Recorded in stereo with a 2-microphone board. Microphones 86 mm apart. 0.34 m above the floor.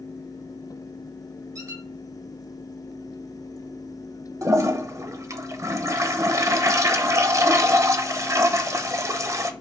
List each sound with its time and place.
1.6 s a squeak: 40° right (ahead or behind), 1.3 m
4.4 s a toilet flushing: 35° right (ahead or behind), 0.7 m